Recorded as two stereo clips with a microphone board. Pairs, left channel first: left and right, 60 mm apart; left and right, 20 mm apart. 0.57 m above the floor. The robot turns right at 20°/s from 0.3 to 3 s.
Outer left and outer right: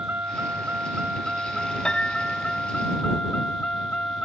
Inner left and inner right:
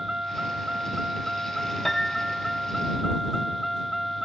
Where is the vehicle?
35° right; by 4.2 s 20° left.